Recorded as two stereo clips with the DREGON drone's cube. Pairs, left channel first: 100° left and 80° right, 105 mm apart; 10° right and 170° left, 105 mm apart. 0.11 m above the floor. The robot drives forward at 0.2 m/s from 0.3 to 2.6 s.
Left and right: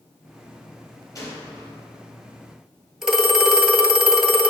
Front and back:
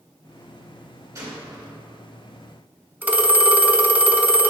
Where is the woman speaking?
No woman speaking in this recording.